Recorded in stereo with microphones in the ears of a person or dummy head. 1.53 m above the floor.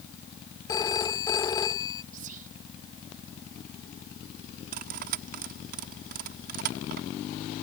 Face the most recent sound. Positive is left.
turn(degrees=-45)  # may be behind; listen again after turning